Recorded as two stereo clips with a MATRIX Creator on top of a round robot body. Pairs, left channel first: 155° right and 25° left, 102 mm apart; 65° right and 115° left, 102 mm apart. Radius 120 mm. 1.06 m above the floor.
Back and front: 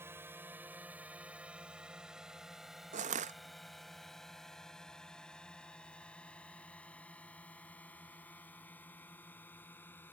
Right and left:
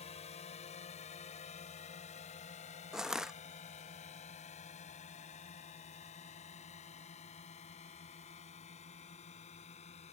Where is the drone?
45° right; by 10.1 s 85° right.